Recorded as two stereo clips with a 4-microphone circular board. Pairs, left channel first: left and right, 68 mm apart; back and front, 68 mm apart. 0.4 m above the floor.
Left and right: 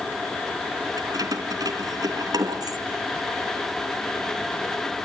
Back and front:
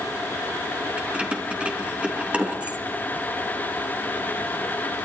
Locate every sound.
1.0 s keys jangling: 70° right, 3.5 m